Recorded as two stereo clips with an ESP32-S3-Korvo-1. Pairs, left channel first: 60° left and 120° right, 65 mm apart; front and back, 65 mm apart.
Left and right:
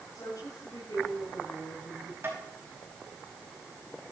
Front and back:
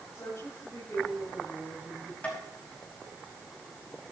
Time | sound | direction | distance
0.1 | a woman speaking | 40° left | 7.5 m
2.2 | tapping | 65° right | 5 m